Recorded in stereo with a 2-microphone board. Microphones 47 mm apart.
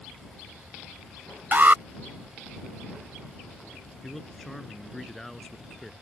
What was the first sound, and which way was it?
An alarm, 40° right (ahead or behind).